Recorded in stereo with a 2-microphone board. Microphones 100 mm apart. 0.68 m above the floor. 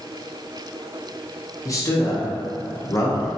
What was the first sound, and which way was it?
A man speaking, 35° left (ahead or behind).